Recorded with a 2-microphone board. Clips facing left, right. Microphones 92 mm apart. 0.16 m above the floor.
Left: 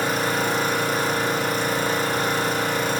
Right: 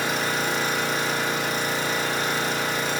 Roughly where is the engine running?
Left.